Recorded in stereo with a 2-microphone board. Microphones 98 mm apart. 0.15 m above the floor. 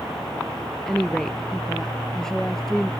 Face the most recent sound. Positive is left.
turn(degrees=5)  # may be behind; listen again after turning